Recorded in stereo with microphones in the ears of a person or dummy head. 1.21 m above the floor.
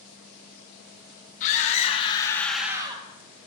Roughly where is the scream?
Left.